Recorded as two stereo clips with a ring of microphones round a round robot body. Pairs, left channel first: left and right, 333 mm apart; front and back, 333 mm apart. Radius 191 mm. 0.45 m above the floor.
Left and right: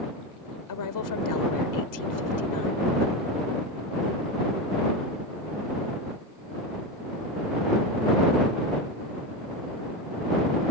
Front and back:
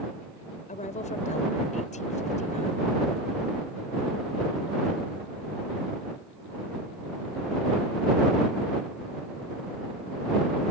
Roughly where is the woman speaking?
Left.